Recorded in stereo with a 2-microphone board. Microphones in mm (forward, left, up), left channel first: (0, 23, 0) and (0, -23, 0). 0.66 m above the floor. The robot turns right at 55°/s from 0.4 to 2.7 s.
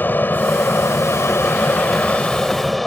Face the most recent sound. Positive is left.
turn(degrees=175)